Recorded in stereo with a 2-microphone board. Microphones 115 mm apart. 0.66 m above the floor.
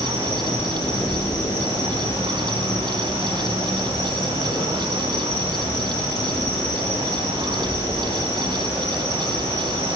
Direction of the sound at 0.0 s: 35° left (ahead or behind).